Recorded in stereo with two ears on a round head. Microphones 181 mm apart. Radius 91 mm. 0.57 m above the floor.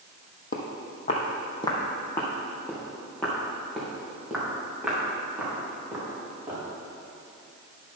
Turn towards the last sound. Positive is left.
turn(degrees=-10)  # may be behind; listen again after turning